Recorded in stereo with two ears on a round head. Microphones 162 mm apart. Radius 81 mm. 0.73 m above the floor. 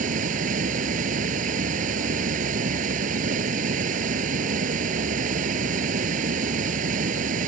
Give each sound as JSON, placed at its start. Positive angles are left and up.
{"t": 0.0, "sound": "running water", "side_deg": -45}